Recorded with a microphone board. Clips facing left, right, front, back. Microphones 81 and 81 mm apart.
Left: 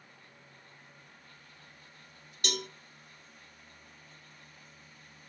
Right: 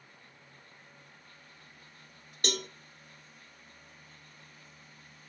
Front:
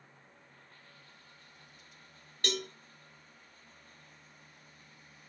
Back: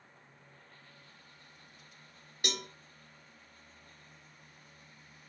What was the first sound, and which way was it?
A cowbell, 110° right.